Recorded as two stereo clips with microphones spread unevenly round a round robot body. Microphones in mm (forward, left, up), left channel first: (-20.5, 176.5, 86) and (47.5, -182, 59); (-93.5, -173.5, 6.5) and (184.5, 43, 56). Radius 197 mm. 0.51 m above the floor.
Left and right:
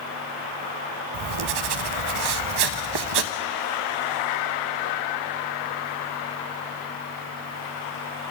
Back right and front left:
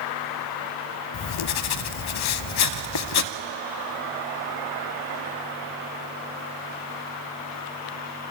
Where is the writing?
100° right, 0.6 m.